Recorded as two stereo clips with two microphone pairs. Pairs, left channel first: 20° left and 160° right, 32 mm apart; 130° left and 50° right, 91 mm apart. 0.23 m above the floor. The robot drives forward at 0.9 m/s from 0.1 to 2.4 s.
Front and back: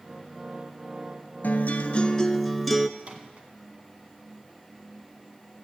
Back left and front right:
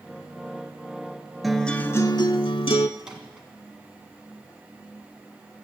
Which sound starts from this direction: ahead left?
A guitar, at 1.4 s.